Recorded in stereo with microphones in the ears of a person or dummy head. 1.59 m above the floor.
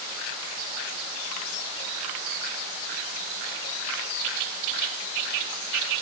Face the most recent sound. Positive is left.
No sound to turn to.